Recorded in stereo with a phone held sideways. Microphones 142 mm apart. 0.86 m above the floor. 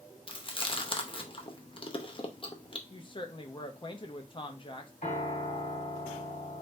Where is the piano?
65° left (ahead or behind), 1.8 m.